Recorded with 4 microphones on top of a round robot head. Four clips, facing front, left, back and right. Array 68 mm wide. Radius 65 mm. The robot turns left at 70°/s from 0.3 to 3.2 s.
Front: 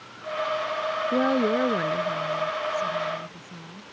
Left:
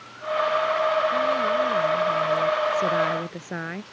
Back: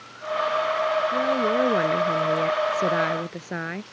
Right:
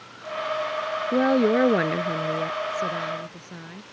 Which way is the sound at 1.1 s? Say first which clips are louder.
Right 2 dB, even; 65° right.